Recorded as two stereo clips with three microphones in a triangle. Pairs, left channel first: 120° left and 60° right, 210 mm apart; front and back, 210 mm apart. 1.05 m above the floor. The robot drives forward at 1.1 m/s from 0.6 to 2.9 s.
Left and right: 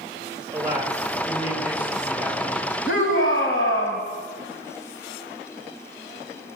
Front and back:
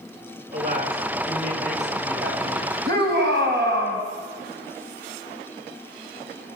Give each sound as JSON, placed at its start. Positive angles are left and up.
{"t": 0.5, "sound": "a man speaking", "azimuth_deg": -135, "distance_m": 5.5}
{"t": 2.9, "sound": "a shout", "azimuth_deg": 145, "distance_m": 6.5}